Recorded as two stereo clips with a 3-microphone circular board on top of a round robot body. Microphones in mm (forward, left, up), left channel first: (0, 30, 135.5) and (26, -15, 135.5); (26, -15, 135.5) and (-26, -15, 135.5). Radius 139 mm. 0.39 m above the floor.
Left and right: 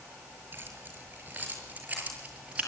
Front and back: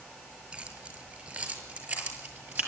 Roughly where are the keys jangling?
Right.